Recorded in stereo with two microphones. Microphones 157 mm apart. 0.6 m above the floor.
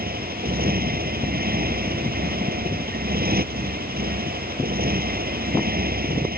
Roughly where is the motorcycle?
Right.